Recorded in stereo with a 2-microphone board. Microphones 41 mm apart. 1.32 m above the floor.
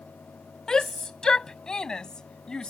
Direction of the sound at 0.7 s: 15° left (ahead or behind).